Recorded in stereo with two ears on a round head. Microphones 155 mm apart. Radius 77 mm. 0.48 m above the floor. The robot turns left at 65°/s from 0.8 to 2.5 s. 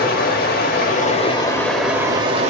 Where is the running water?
65° left, 0.7 m; by 2.5 s 45° right, 0.7 m.